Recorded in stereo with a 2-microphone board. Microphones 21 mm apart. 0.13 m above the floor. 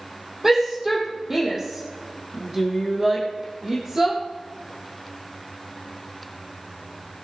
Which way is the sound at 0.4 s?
20° right (ahead or behind).